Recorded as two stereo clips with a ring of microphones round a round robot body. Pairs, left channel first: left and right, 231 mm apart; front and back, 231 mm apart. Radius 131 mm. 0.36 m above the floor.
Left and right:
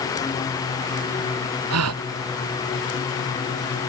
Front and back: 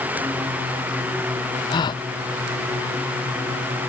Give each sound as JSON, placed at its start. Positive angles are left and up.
{"t": 1.7, "sound": "a gasp", "azimuth_deg": -75}